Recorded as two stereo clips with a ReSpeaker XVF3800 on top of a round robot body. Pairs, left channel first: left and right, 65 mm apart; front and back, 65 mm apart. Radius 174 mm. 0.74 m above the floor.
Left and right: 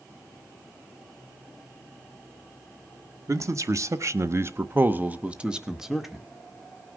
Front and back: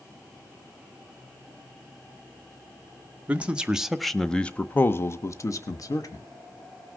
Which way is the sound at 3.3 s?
115° right.